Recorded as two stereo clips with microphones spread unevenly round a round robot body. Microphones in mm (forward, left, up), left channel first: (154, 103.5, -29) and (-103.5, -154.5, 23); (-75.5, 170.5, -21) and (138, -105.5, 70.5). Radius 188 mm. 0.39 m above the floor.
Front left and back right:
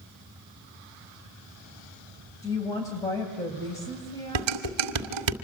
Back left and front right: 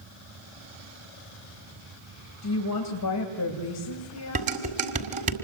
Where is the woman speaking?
120° left, 2.5 m.